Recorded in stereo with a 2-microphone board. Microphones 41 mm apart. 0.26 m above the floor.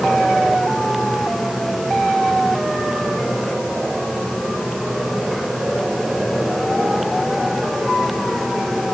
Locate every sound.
Only background noise.